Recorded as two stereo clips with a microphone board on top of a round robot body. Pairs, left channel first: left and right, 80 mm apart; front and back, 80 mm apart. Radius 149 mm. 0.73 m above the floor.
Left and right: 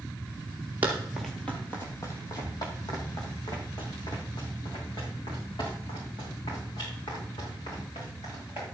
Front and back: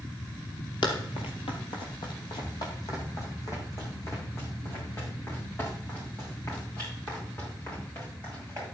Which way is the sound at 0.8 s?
25° right.